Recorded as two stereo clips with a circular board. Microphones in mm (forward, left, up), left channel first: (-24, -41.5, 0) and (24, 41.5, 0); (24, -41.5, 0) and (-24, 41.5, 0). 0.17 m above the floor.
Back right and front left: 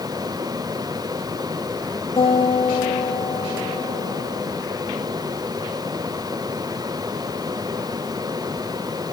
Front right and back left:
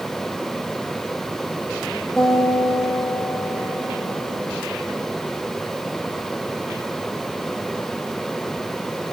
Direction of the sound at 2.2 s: 145° right.